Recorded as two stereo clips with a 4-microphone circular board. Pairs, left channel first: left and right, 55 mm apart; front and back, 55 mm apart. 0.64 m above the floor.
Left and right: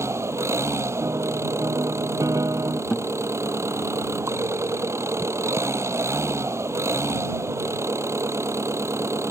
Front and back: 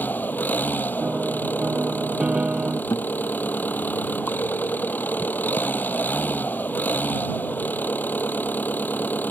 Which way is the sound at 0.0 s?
55° right.